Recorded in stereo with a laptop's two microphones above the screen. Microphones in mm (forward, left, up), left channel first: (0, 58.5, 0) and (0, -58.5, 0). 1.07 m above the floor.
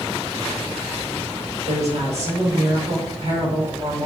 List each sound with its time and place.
1.7 s a woman speaking: 70° right (ahead or behind), 3.5 m